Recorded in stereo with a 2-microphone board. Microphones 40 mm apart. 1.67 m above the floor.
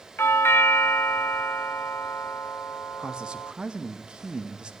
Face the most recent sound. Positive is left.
turn(degrees=-20)  # may be behind; listen again after turning